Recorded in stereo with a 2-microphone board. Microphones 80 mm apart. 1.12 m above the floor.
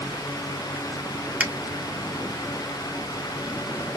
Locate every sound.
1.4 s a finger snap: 15° right (ahead or behind), 0.5 m